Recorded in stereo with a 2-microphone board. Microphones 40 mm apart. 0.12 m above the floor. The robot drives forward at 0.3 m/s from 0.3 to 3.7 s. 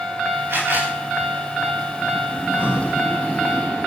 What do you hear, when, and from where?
0.5 s a camera shutter: 85° right, 9 m
2.4 s breathing: 45° right (ahead or behind), 7.5 m; by 3.0 s 40° right (ahead or behind), 7.5 m